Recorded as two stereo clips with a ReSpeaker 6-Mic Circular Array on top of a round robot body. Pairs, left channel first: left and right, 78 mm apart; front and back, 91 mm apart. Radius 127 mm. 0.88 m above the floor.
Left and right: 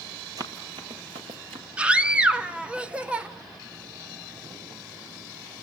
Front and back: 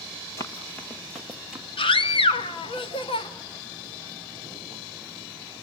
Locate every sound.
0.4 s running footsteps: 55° right, 1.2 m; by 1.6 s 100° right, 1.4 m
1.8 s a scream: 15° right, 2 m